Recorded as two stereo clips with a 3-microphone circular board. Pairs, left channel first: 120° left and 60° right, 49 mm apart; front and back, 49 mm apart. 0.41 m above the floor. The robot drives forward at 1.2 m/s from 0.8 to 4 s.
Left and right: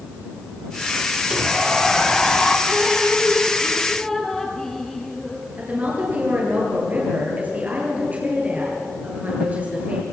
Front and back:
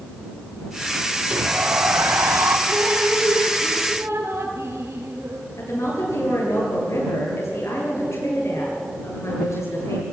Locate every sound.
1.3 s a sliding door: 130° right, 0.8 m; by 2.6 s 165° right, 2 m
2.7 s dripping: 135° right, 1.5 m; by 5.5 s 160° right, 3 m
5.6 s a woman speaking: 5° right, 9.5 m